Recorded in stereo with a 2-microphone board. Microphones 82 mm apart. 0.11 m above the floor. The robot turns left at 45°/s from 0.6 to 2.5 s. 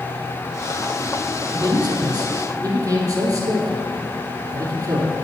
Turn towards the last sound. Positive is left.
turn(degrees=-125)